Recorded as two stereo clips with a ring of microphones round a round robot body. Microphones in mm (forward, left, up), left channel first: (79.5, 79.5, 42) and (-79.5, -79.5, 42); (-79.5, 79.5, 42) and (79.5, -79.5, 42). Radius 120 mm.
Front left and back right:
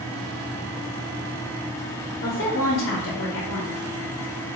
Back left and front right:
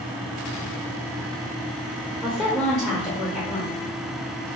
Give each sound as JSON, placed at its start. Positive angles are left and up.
{"t": 2.2, "sound": "a woman speaking", "azimuth_deg": 50, "distance_m": 0.7}